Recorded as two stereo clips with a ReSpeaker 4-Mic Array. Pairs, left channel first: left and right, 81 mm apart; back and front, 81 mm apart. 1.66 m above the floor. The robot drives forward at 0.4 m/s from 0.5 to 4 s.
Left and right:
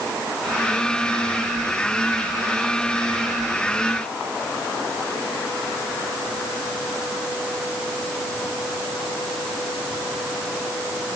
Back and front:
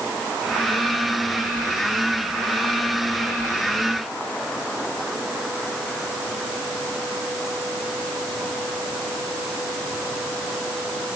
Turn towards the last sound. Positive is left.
No sound to turn to.